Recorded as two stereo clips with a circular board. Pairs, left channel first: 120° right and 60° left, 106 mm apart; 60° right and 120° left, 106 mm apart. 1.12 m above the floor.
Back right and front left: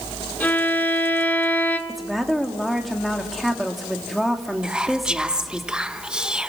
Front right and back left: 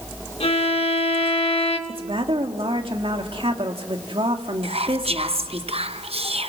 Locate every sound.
0.4 s a violin: 45° right, 1.8 m
1.9 s a woman speaking: 150° left, 2.5 m
4.6 s whispering: 140° left, 0.8 m